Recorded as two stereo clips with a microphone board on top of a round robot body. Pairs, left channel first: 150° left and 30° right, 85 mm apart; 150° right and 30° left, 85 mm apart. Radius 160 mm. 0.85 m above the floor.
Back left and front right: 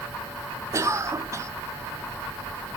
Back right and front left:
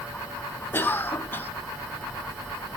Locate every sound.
0.7 s a cough: 85° right, 0.9 m